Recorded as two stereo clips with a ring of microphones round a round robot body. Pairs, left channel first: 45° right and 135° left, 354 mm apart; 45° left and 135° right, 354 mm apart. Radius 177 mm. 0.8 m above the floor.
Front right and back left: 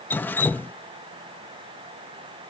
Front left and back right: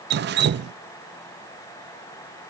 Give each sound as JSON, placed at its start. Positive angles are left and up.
{"t": 0.1, "sound": "dripping", "azimuth_deg": -125}